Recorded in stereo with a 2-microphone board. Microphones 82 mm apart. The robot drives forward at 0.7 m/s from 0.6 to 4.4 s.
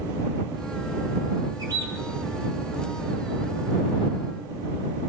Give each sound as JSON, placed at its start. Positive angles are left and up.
{"t": 1.6, "sound": "a bird", "side_deg": -55, "distance_m": 2.5}